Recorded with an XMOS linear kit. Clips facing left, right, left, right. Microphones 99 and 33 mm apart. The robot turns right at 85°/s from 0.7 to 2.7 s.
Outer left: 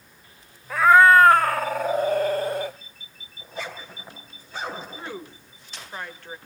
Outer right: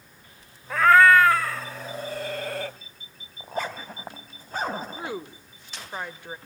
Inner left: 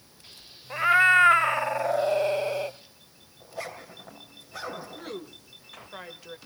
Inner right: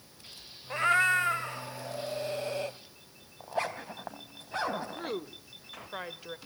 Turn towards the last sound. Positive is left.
turn(degrees=-15)  # may be behind; listen again after turning